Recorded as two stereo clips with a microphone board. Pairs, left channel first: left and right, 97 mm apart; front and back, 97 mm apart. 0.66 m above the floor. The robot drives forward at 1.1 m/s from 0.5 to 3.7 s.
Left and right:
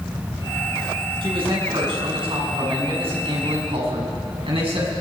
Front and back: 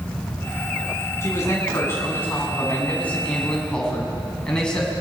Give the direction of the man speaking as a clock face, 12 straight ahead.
2 o'clock.